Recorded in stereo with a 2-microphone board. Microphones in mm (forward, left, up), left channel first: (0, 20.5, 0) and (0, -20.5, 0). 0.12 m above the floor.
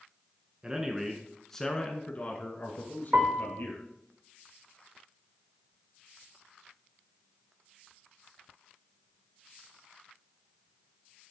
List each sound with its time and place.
0.6 s a man speaking: 20° right (ahead or behind), 1.1 m; by 3.8 s 60° left (ahead or behind), 2 m
3.1 s a piano: 50° right (ahead or behind), 2 m